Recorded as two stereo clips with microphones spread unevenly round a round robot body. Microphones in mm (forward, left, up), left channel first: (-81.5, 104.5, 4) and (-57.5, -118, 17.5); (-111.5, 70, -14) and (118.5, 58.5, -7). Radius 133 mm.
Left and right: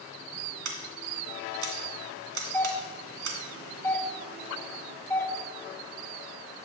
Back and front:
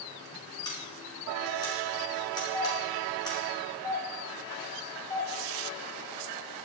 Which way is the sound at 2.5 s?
150° left.